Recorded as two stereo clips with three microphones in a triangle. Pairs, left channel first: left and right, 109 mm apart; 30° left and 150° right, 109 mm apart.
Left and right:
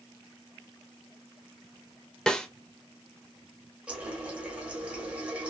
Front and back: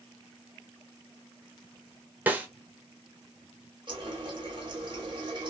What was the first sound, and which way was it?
A snare drum, 165° left.